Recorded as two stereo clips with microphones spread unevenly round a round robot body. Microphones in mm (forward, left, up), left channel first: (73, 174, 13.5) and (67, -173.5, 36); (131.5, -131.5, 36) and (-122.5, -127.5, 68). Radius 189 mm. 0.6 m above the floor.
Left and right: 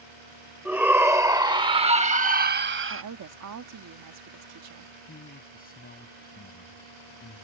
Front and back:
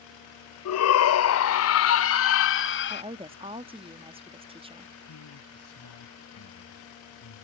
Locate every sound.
0.7 s a shout: 5° right; by 3.0 s 40° right
2.9 s a woman speaking: 110° right
5.1 s a man speaking: 25° left